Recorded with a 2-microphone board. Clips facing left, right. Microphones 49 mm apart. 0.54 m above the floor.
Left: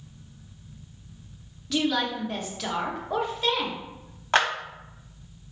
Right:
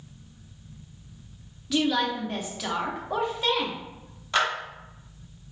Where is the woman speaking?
5° right (ahead or behind), 0.8 m.